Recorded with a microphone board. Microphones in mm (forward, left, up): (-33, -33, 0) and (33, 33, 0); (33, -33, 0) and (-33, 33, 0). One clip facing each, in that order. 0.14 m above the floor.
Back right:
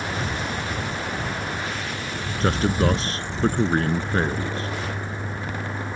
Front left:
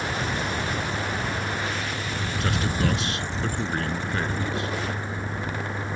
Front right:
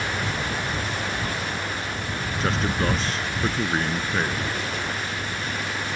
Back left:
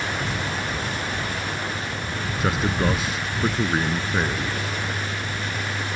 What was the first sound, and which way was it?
A man speaking, 145° right.